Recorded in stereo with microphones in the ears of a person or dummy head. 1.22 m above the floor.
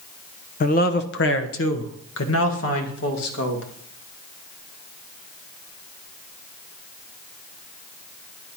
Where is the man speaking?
35° left (ahead or behind), 0.7 m; by 3.6 s 75° left (ahead or behind), 2 m.